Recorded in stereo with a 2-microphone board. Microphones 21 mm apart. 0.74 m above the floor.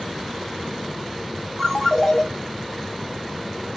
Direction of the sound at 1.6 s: 25° left (ahead or behind).